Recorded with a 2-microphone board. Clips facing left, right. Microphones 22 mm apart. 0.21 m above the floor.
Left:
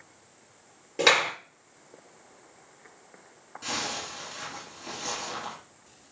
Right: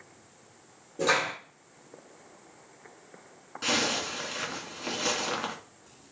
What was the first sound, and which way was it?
A clap, 70° left (ahead or behind).